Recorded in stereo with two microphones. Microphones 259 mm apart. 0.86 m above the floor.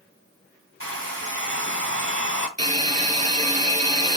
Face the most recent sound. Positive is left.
turn(degrees=-30)  # may be behind; listen again after turning